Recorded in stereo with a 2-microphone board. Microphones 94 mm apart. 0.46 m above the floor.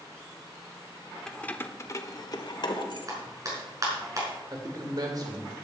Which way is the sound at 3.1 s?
40° right (ahead or behind).